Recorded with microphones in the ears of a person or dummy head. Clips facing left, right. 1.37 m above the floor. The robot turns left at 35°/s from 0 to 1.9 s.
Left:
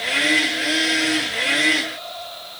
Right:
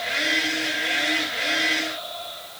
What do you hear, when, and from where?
Only background noise.